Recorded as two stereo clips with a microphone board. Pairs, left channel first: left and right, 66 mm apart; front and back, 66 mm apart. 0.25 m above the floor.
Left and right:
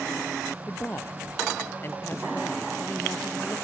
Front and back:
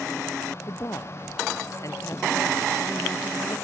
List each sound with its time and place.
0.7 s a man speaking: 35° left